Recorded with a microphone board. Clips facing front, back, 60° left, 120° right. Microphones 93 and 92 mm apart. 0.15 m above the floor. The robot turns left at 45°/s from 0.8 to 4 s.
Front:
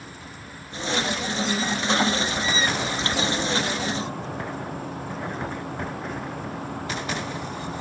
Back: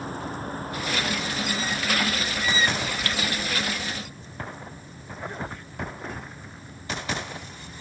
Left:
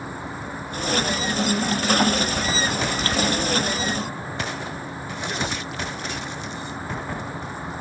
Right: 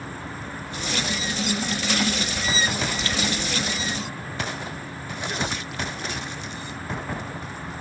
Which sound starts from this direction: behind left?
An insect, at 0.0 s.